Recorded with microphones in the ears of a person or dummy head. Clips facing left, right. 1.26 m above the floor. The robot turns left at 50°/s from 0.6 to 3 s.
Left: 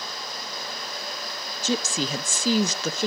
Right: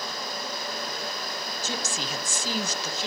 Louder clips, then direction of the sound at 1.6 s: Left 10 dB; 115° left.